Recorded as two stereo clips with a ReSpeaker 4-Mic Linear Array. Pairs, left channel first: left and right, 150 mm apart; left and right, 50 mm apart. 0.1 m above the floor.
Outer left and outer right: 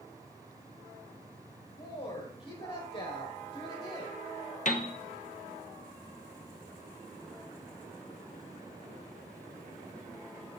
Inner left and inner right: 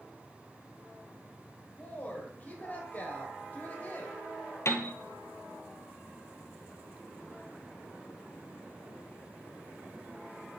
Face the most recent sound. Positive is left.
turn(degrees=60)  # may be behind; listen again after turning